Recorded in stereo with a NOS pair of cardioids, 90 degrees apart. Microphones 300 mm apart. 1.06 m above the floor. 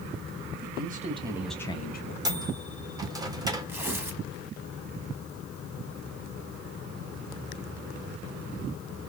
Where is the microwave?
10° right, 1.0 m.